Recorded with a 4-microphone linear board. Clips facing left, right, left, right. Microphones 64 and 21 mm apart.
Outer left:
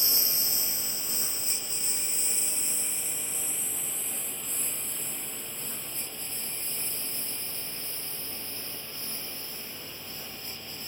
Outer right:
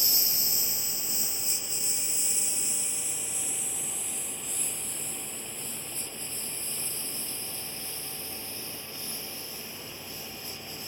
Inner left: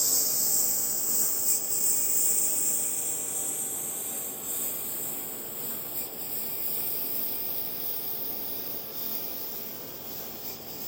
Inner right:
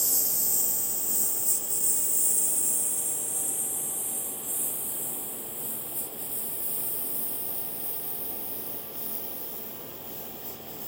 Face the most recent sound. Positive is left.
turn(degrees=40)  # may be behind; listen again after turning